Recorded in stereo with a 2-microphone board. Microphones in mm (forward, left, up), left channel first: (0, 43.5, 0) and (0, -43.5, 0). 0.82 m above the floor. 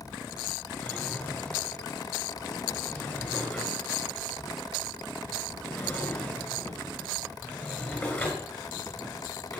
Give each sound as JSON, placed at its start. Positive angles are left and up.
{"t": 0.8, "sound": "a drawer", "side_deg": 25, "distance_m": 6.0}